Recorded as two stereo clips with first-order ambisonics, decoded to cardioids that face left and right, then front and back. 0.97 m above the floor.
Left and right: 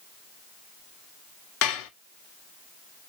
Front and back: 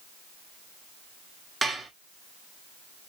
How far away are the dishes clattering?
About 0.9 m.